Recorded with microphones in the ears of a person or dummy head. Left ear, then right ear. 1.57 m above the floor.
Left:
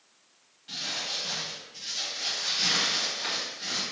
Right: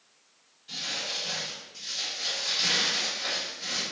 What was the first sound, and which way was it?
Crumpling, 30° left (ahead or behind).